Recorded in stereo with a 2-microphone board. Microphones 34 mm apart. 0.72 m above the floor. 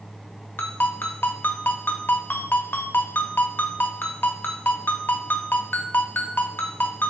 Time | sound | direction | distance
0.6 | a ringtone | 75° left (ahead or behind) | 0.8 m